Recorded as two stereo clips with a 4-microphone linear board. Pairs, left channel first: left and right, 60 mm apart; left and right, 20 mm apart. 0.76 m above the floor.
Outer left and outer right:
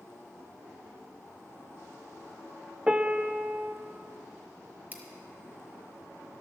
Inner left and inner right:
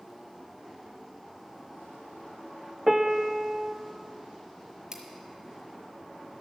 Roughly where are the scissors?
Right.